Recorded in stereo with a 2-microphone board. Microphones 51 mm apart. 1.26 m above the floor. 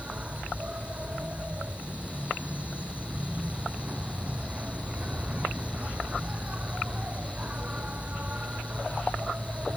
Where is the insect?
25° right (ahead or behind).